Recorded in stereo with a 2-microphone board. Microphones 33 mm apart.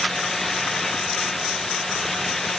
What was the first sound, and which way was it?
Only background noise.